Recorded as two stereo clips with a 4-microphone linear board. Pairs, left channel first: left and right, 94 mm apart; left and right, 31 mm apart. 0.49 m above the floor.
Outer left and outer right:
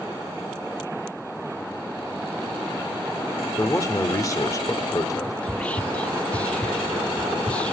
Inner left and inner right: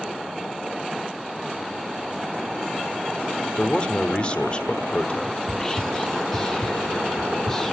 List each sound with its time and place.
3.6 s a man speaking: 35° left (ahead or behind), 1.0 m
5.4 s whispering: 15° left (ahead or behind), 0.7 m